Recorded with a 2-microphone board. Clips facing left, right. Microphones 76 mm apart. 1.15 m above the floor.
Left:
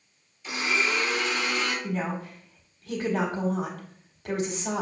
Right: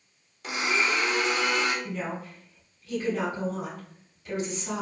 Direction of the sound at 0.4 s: 65° right (ahead or behind).